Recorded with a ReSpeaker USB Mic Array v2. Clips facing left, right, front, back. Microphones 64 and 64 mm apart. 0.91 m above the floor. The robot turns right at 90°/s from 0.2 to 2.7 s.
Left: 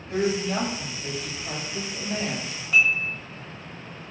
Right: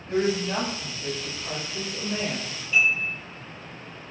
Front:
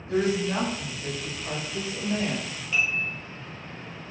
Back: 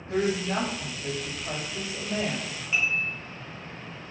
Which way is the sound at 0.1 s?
130° right.